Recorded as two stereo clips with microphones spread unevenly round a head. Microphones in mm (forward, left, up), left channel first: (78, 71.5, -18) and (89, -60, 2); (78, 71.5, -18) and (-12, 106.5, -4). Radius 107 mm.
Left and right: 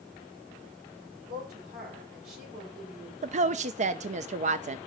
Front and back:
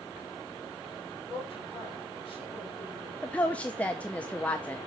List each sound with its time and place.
1.3 s a woman speaking: 120° right, 5.5 m
3.2 s a woman speaking: 90° right, 0.6 m